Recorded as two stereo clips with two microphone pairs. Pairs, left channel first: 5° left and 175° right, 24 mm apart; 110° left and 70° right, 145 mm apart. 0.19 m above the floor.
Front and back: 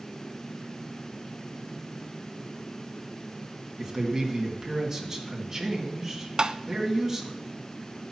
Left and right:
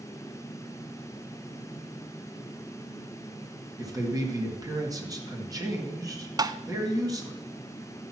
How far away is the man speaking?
About 2 m.